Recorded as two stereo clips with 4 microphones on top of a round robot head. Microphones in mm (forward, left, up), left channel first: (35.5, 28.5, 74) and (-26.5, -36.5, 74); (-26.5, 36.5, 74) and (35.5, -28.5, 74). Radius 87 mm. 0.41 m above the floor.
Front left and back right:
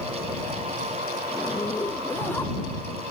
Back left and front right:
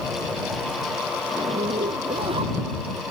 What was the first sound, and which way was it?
A zipper, 20° right.